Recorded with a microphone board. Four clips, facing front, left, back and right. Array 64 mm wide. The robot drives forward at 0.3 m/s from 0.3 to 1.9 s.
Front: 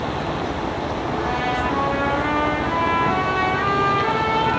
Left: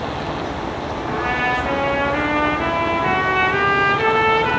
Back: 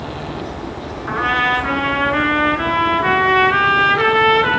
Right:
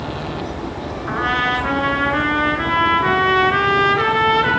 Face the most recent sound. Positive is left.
turn(degrees=-150)